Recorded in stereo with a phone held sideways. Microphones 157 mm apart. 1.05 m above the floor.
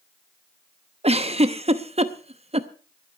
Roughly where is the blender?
I don't hear a blender.